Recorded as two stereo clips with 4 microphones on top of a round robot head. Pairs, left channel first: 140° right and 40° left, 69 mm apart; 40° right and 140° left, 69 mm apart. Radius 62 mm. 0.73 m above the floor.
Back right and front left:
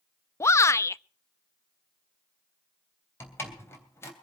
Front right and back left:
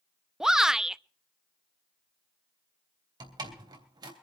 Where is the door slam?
165° left, 3 m.